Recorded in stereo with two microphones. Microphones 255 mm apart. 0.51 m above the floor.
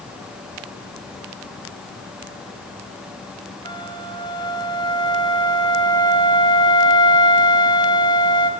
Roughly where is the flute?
Centre.